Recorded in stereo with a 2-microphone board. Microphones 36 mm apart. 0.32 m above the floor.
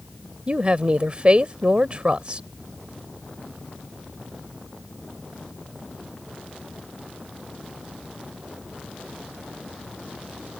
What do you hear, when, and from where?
0.5 s a woman speaking: 30° right (ahead or behind)